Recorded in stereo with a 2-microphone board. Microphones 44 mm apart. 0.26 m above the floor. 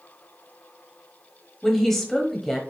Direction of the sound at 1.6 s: 5° left (ahead or behind).